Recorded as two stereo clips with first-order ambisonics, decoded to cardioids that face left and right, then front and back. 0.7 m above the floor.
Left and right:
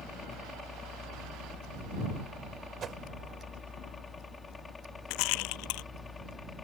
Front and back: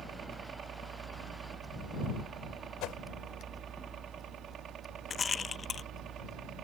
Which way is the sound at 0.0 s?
155° left.